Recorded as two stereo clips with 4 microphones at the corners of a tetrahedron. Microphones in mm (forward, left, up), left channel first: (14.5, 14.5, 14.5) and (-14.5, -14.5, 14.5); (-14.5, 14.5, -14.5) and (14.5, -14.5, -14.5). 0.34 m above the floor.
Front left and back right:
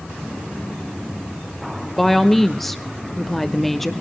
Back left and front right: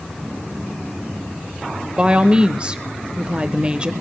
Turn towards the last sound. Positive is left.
turn(degrees=-35)